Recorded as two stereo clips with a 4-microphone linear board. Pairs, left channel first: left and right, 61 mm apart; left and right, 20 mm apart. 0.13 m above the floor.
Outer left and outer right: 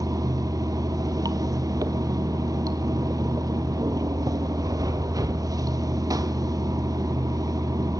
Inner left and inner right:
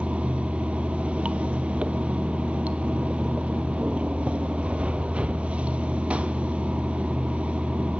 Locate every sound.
0.0 s running water: 75° right (ahead or behind), 0.7 m